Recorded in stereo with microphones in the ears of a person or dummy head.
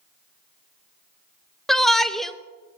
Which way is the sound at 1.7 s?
Centre (ahead or behind).